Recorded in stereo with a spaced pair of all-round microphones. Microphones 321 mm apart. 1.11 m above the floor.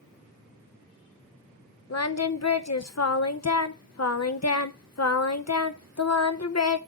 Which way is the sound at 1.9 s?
55° left (ahead or behind).